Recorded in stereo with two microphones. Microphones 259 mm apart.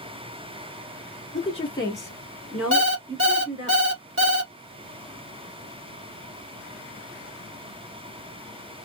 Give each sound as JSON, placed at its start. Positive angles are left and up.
{"t": 1.3, "sound": "a woman speaking", "side_deg": 25, "distance_m": 1.5}
{"t": 2.7, "sound": "an alarm clock", "side_deg": -50, "distance_m": 0.7}